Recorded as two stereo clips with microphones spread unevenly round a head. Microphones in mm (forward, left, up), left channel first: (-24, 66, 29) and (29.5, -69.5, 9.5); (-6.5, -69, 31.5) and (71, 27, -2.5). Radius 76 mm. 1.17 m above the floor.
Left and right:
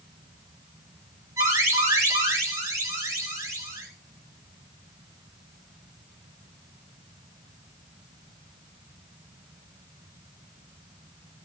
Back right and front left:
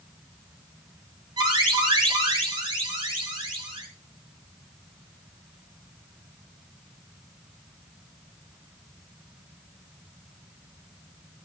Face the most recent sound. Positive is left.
turn(degrees=0)